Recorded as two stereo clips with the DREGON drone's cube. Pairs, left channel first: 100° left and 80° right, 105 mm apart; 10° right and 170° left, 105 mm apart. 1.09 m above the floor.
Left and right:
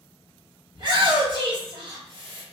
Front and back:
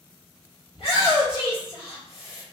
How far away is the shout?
About 1.6 m.